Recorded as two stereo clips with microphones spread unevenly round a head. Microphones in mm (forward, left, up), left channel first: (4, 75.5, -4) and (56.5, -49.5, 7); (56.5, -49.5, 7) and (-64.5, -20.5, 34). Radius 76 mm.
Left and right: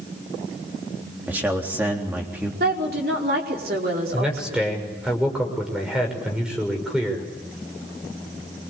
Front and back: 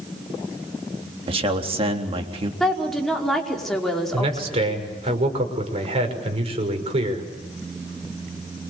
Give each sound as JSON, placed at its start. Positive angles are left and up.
{"t": 1.3, "sound": "a man speaking", "azimuth_deg": -145, "distance_m": 3.5}
{"t": 2.6, "sound": "a woman speaking", "azimuth_deg": -100, "distance_m": 5.0}
{"t": 4.1, "sound": "a man speaking", "azimuth_deg": -150, "distance_m": 6.0}